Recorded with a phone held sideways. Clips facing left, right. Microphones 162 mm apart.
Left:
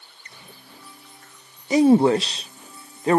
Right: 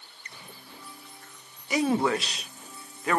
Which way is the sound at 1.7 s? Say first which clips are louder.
Left 10 dB; 30° left (ahead or behind).